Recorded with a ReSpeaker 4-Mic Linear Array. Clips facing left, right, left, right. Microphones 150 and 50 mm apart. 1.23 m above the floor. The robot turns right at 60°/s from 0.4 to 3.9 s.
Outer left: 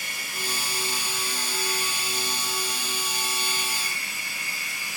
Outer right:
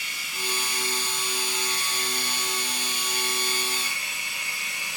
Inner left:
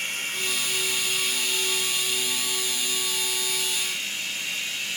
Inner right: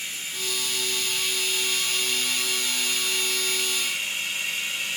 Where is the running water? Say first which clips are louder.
Outer left 1 dB, inner left 4 dB; 130° left, 2.5 m; by 5.0 s 20° right, 2.5 m.